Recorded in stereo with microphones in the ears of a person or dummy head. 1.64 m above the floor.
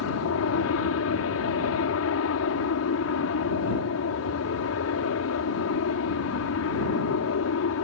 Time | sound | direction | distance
0.0 | an aircraft | 70° left (ahead or behind) | ?